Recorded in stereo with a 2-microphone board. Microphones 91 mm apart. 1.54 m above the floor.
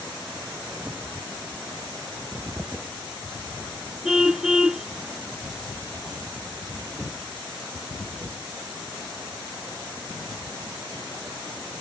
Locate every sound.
4.0 s a car horn: 5° right (ahead or behind)